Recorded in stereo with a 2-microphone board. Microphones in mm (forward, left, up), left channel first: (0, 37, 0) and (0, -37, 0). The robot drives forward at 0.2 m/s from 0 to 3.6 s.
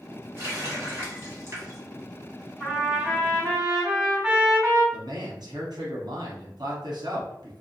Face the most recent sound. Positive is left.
turn(degrees=-70)  # may be behind; listen again after turning